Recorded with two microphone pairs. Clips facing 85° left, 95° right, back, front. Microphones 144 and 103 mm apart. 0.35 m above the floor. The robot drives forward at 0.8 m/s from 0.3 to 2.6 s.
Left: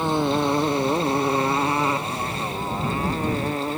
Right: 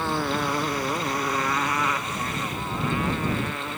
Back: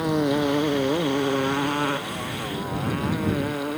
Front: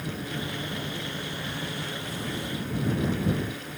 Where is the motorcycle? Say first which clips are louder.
Left 5 dB, back 13 dB; 160° left; by 3.8 s 145° left.